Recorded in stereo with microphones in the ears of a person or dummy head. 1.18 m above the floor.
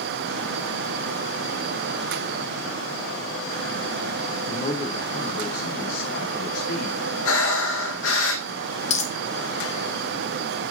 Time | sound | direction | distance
4.5 | a man speaking | 40° left (ahead or behind) | 2.5 m
7.2 | breathing | 70° left (ahead or behind) | 3 m
8.9 | a dropped coin | 35° left (ahead or behind) | 1.1 m